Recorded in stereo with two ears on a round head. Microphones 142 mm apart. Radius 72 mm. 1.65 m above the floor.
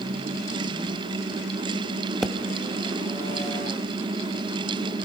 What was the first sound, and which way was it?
A pop, centre (ahead or behind).